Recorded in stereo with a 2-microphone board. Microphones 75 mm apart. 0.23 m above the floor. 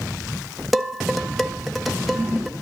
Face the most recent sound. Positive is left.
turn(degrees=0)  # may be behind; listen again after turning